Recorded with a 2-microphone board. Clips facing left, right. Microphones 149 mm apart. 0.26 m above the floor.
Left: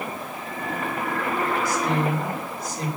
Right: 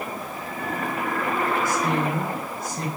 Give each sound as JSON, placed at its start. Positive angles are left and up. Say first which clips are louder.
{"t": 1.6, "sound": "a woman speaking", "louder": "even", "side_deg": -50, "distance_m": 2.0}